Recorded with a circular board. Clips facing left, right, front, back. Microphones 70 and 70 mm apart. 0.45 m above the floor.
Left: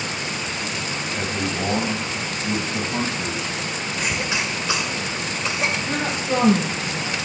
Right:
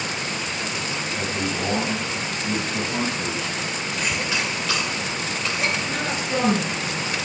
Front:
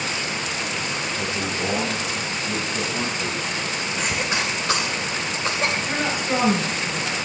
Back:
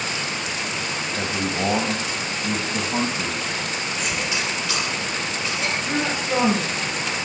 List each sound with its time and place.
1.1 s a man speaking: 165° left, 3 m
4.0 s a cough: 25° left, 1.7 m
5.8 s a woman speaking: 75° left, 7.5 m